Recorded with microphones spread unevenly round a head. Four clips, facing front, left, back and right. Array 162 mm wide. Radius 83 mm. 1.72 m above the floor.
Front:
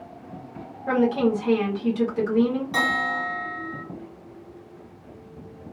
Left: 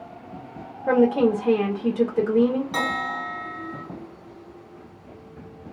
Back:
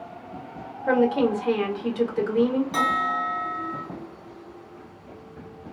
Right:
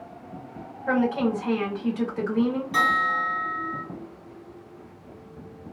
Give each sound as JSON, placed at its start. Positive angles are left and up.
{"t": 0.9, "sound": "a woman speaking", "azimuth_deg": 100, "distance_m": 1.1}
{"t": 2.7, "sound": "a bell", "azimuth_deg": 90, "distance_m": 1.9}